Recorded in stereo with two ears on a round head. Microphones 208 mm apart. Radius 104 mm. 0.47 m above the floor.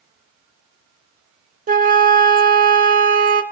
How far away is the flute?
About 0.8 m.